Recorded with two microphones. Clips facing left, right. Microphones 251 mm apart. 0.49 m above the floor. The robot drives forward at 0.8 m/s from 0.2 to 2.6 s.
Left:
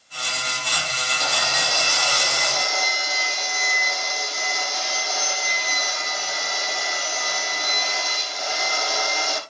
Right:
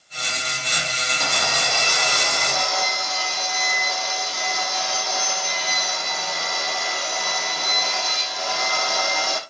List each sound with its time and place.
1.2 s sawing: 50° right (ahead or behind), 4 m; by 9.4 s 65° right (ahead or behind), 3.5 m